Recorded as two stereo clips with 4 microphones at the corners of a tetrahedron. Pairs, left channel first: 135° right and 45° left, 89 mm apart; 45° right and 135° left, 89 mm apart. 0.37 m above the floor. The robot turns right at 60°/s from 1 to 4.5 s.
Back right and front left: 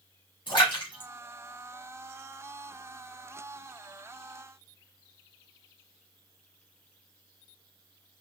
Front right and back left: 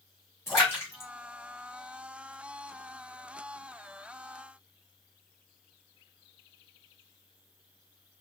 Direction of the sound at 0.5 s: 105° right.